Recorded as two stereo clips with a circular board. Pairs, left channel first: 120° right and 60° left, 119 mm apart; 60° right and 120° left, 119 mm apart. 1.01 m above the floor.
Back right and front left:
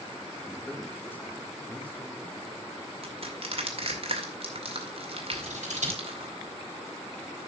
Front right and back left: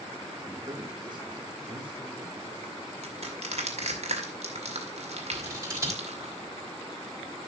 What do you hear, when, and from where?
0.5 s a man speaking: 175° left, 1.6 m; by 2.9 s 160° left, 3 m
3.0 s crushing: 95° left, 2 m
5.3 s scissors: 55° left, 3.5 m